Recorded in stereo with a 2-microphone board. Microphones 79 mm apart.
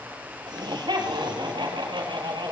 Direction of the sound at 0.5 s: 70° right (ahead or behind).